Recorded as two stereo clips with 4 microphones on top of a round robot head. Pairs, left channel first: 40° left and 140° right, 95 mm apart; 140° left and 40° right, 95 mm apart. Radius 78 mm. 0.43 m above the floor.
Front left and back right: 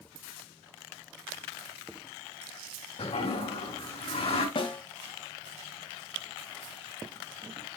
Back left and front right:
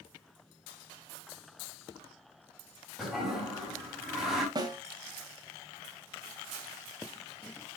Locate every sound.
3.0 s a toilet flushing: 50° left, 4 m
4.5 s a snare drum: 5° left, 2.0 m